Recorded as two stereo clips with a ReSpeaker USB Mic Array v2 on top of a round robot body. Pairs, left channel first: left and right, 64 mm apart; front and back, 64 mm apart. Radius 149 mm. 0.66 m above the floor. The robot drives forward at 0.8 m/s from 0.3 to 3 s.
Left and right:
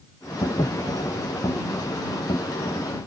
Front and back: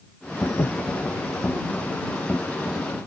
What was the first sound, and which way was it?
Breathing, 35° left.